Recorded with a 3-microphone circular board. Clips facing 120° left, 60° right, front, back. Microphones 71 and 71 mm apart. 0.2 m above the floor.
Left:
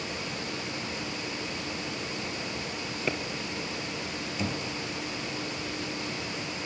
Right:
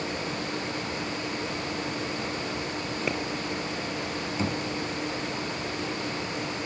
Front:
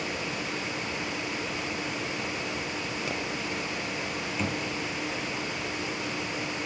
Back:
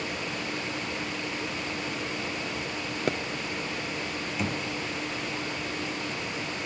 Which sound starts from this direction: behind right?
A pop, at 3.1 s.